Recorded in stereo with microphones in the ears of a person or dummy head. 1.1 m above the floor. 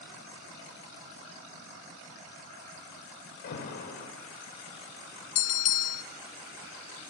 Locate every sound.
3.4 s an alarm: 50° left (ahead or behind), 6 m
5.3 s a bell: 45° left (ahead or behind), 1.0 m